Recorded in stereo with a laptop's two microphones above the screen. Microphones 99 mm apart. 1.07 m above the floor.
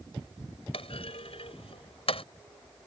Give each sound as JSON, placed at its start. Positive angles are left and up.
{"t": 0.7, "sound": "a clunk", "side_deg": 75}